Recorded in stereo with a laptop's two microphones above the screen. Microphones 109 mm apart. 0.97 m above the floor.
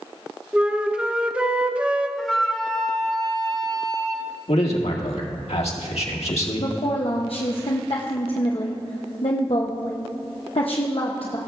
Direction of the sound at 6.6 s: 60° left (ahead or behind).